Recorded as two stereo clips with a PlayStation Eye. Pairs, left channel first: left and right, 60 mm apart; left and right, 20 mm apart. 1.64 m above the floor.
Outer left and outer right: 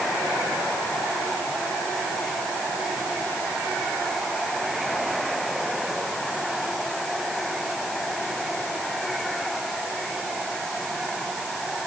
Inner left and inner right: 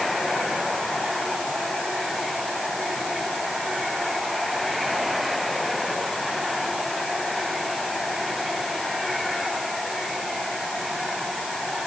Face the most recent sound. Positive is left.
No sound to turn to.